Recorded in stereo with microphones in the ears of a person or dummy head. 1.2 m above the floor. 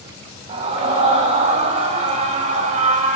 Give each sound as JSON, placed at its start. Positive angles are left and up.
{"t": 0.5, "sound": "a scream", "side_deg": -35, "distance_m": 8.5}